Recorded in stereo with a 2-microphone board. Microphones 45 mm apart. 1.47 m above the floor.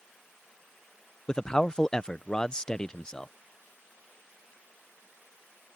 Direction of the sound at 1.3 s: 15° left (ahead or behind).